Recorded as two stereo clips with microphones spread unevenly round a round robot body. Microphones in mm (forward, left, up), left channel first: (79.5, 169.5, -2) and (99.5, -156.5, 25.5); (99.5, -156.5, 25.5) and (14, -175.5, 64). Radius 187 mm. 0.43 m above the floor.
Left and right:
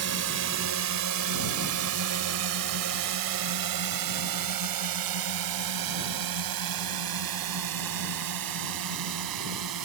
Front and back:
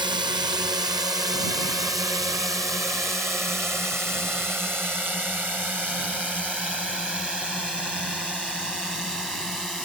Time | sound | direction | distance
0.0 | a drone | 125° right | ?